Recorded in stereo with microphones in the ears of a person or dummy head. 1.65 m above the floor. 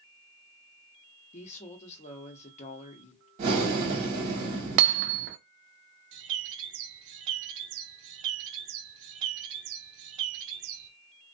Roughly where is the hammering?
Right.